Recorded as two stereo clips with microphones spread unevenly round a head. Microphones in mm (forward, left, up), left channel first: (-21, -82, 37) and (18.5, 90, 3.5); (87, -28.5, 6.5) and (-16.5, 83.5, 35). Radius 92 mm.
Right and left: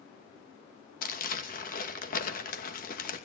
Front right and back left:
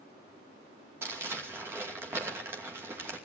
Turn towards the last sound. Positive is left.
turn(degrees=-150)